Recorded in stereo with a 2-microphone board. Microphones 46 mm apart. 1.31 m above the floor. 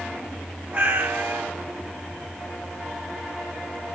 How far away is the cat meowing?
About 1.2 m.